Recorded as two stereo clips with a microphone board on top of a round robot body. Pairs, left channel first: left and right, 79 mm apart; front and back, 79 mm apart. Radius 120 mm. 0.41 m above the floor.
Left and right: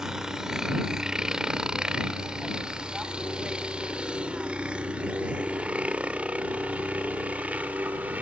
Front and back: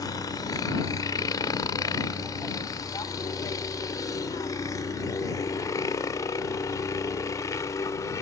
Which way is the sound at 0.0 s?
10° right.